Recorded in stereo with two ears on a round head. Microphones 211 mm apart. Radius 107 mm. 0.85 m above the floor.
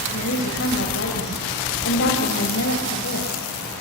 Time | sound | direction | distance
0.1 | a woman speaking | 55° left (ahead or behind) | 4 m